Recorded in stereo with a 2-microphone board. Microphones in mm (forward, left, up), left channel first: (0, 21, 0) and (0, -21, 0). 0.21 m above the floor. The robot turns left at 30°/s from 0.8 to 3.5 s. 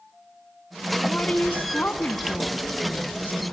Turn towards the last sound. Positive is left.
turn(degrees=60)